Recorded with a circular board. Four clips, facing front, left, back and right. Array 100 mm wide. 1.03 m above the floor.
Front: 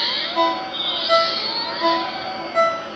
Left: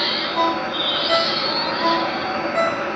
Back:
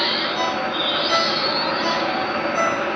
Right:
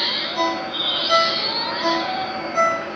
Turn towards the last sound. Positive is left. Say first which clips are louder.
# left 2 dB, front 6 dB
turn(degrees=25)